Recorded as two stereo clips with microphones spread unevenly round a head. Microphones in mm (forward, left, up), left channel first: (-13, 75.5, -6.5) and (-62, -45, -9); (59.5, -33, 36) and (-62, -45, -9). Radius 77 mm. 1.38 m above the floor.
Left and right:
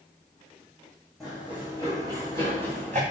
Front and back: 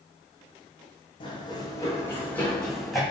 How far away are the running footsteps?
About 3 m.